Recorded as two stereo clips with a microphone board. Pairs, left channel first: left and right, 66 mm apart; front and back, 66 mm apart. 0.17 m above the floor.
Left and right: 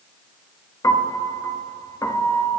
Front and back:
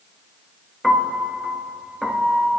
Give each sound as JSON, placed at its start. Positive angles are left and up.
{"t": 0.8, "sound": "a piano", "azimuth_deg": 90, "distance_m": 1.0}